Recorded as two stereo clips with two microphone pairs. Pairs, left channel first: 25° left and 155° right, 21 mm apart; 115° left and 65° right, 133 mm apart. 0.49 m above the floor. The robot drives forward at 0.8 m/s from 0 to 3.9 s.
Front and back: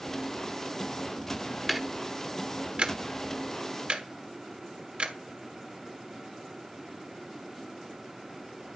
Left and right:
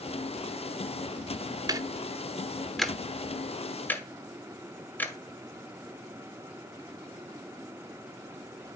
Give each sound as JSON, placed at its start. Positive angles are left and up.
{"t": 1.7, "sound": "ticking", "azimuth_deg": -60, "distance_m": 0.8}